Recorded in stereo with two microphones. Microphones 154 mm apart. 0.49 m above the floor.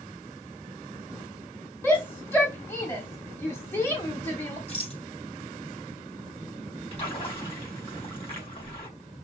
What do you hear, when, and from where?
1.8 s a shout: 15° left (ahead or behind), 1.1 m
4.7 s a rattle: 45° left (ahead or behind), 4 m
6.9 s a splash: 40° left (ahead or behind), 3.5 m